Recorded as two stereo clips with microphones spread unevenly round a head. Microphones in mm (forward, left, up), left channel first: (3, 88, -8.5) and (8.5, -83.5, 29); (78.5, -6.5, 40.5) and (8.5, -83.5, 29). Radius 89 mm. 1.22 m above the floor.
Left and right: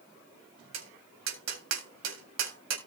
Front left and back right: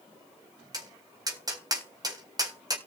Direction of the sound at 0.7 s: 80° right.